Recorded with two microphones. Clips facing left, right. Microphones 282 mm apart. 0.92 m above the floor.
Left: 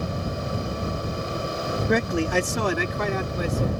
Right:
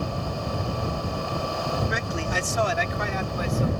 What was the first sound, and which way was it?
A man speaking, 60° left (ahead or behind).